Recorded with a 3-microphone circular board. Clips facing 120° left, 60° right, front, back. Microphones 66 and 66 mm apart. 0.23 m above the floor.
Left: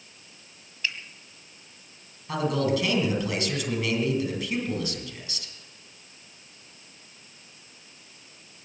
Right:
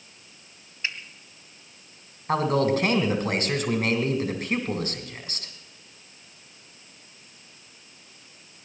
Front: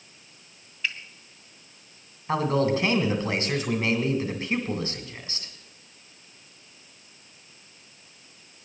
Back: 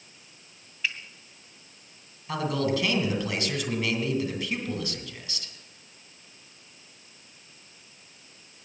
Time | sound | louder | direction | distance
0.8 | a finger snap | even, even | 90° right | 1.7 m
2.3 | a man speaking | right 3 dB, front 4 dB | 45° right | 2.5 m